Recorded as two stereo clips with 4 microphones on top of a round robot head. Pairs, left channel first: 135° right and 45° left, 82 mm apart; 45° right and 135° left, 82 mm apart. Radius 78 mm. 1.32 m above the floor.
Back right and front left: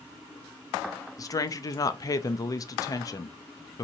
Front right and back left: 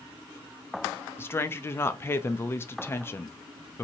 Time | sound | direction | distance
1.2 | a woman speaking | 100° right | 0.5 m